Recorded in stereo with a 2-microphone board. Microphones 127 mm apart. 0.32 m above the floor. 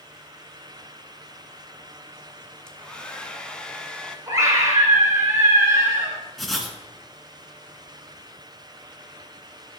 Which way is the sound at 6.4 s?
Centre (ahead or behind).